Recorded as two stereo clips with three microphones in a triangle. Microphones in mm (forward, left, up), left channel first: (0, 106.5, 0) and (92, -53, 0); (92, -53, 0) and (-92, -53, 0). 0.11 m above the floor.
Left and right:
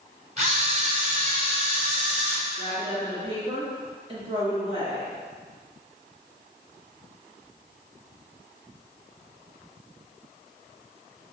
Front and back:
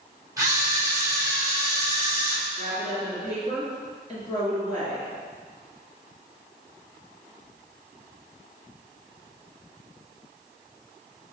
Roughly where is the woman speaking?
Ahead right.